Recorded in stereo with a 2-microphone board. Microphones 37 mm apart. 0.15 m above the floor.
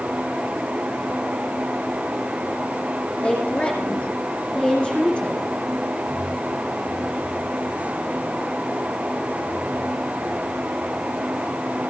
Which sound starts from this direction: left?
A woman speaking, at 3.2 s.